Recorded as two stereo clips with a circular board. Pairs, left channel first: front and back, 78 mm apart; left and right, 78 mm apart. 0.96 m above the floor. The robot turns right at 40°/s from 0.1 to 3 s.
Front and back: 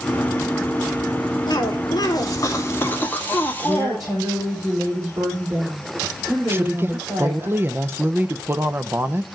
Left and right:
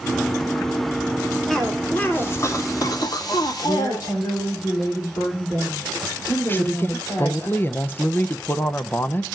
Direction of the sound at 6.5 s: 135° left.